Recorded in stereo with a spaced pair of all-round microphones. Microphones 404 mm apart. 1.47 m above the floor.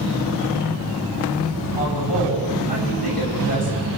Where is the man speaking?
60° left (ahead or behind), 9.5 m.